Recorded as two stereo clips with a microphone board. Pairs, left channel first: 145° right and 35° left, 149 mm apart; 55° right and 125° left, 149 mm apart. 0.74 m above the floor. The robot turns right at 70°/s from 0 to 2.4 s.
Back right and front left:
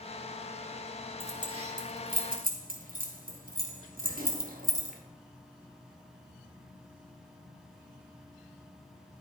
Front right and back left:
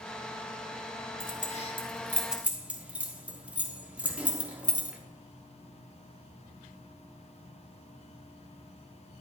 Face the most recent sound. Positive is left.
turn(degrees=45)